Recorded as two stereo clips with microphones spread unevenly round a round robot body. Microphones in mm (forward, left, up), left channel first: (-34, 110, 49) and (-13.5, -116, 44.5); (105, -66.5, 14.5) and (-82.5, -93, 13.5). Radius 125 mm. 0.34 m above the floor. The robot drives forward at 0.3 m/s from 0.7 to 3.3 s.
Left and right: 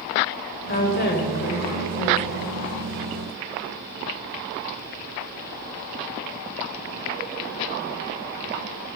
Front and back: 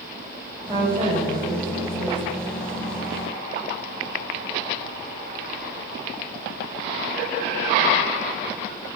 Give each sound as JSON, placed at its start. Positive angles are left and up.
{"t": 0.7, "sound": "a woman speaking", "azimuth_deg": 120, "distance_m": 1.2}